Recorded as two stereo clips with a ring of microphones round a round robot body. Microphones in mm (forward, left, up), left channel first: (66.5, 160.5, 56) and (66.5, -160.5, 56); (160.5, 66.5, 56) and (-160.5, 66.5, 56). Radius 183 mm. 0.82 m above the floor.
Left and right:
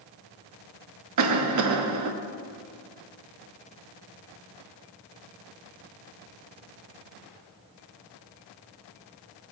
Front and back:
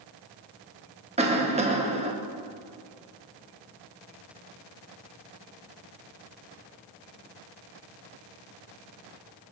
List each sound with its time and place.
1.2 s a cough: 110° right, 0.9 m